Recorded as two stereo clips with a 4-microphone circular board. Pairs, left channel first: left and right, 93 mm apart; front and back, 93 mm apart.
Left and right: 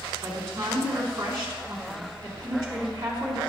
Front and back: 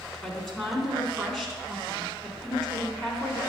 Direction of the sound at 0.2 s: 80° right.